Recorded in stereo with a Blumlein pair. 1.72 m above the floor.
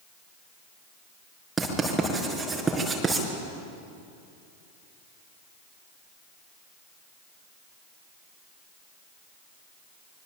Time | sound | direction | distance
1.6 | writing | 10° right | 5.5 m